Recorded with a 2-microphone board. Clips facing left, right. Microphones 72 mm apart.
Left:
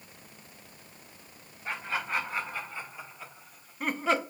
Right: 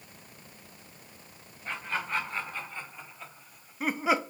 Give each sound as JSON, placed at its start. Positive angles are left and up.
{"t": 1.6, "sound": "laughter", "side_deg": 10, "distance_m": 2.5}